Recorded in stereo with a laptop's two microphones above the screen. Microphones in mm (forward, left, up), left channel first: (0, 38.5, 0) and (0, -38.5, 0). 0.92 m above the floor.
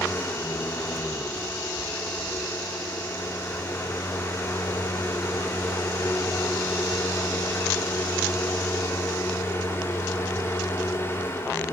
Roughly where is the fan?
Left.